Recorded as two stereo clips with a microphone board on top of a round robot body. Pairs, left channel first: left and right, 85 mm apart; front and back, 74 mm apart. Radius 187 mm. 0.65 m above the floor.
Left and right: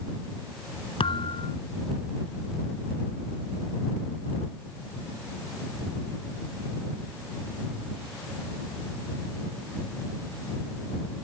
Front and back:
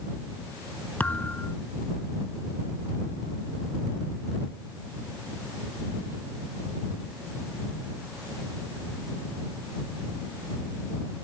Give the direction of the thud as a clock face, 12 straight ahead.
10 o'clock.